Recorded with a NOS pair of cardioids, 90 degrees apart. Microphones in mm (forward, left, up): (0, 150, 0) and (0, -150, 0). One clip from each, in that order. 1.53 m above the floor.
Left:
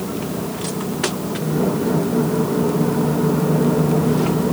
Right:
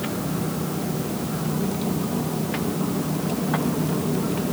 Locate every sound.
Only background noise.